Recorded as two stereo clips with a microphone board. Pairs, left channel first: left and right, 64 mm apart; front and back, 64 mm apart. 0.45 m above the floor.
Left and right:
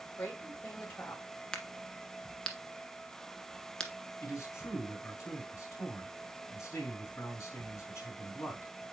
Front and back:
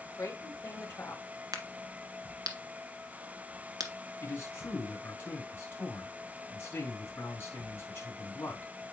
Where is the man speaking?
50° left, 3.5 m.